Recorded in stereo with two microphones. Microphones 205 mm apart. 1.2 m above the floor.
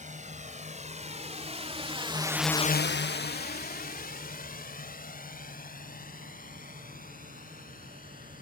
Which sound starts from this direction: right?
A drone, at 0.0 s.